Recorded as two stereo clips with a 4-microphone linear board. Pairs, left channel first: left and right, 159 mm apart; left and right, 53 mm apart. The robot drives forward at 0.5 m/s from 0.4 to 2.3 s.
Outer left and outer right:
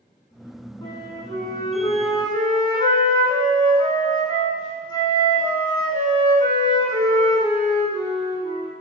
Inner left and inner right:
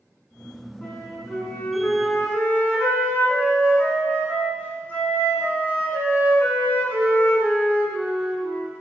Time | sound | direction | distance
0.8 | a flute | 25° left (ahead or behind) | 1.8 m